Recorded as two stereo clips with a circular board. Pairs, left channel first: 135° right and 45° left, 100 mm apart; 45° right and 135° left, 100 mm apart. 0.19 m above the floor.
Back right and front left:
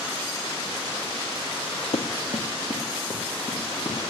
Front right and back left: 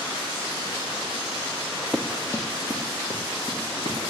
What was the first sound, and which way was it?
Running footsteps, 130° right.